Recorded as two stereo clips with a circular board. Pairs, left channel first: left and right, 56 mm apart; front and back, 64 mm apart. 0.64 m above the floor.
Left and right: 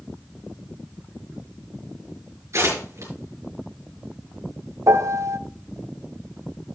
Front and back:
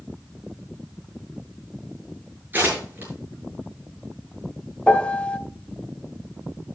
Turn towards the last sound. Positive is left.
turn(degrees=-70)